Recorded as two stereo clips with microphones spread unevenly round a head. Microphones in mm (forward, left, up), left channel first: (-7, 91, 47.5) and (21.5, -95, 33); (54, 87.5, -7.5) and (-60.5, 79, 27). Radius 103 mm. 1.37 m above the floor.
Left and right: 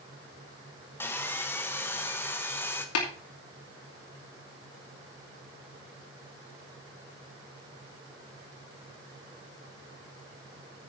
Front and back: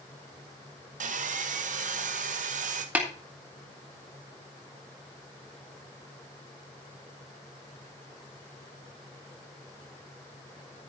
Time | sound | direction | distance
1.0 | sawing | straight behind | 1.4 m
3.0 | tapping | 110° left | 3.5 m